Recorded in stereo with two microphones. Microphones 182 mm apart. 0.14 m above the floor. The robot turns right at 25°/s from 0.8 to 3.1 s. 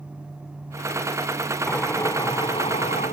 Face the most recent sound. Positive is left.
turn(degrees=45)